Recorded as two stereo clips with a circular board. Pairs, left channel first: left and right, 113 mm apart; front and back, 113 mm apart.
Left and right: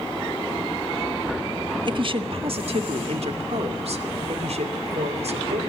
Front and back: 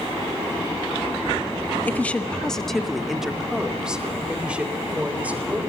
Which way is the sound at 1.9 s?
70° right.